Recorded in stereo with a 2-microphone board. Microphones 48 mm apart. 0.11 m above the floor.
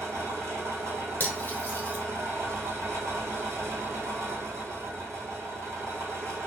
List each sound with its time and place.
0.0 s an engine running: 75° right (ahead or behind), 1.2 m
1.2 s cutlery clinking: 35° left (ahead or behind), 0.9 m